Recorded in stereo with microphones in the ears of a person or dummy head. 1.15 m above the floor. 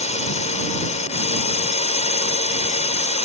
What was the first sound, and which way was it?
A drone, 30° left (ahead or behind).